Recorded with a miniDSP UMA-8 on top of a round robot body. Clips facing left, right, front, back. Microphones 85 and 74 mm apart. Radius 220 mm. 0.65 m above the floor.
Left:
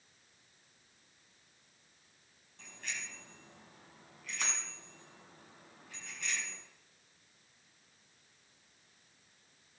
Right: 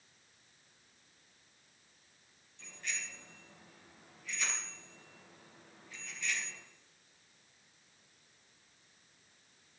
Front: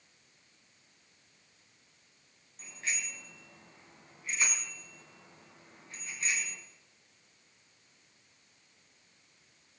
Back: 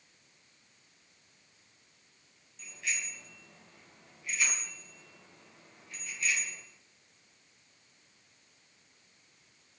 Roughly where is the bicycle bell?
Ahead left.